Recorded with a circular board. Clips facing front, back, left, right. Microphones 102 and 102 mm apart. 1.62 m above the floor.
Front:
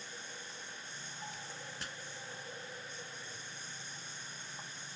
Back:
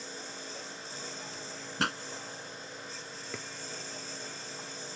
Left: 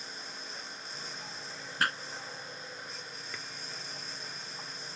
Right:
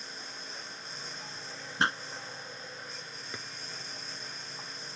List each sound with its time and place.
0.0 s a lawn mower: straight behind
1.8 s a pop: 155° right
3.3 s a drawer: 160° right